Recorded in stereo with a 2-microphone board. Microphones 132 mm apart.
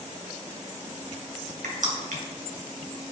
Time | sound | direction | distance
1.6 | crushing | 85° right | 2.5 m